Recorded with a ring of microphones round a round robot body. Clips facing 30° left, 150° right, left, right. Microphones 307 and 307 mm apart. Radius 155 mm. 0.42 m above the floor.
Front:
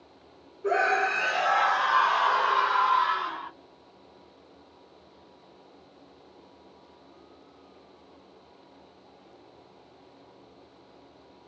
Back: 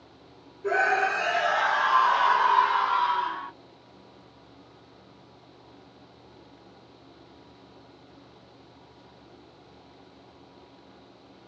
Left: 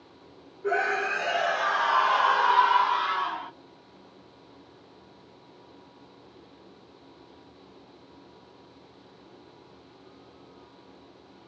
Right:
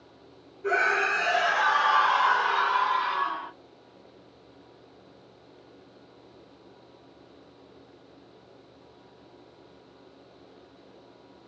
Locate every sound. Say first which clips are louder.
0.6 s a scream: even, left 1 dB; 85° right, 1.3 m; by 3.5 s 115° left, 1.5 m